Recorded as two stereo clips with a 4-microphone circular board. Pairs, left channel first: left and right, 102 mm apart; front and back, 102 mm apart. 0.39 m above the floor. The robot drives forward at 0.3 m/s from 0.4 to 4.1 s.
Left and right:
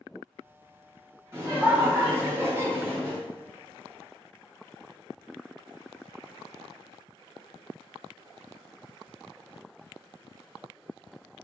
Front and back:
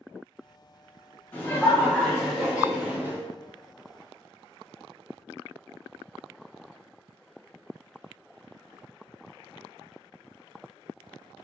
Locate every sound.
1.3 s laughter: 55° right, 0.9 m; by 3.2 s 130° right, 0.9 m